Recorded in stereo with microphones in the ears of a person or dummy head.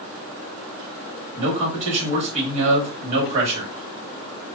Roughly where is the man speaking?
Right.